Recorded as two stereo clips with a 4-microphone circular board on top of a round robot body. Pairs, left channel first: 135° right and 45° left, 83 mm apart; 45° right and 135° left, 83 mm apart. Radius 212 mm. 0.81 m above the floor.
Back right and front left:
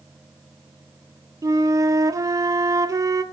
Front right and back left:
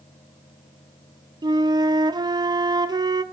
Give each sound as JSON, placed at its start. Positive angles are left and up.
{"t": 1.4, "sound": "a flute", "azimuth_deg": 95, "distance_m": 1.3}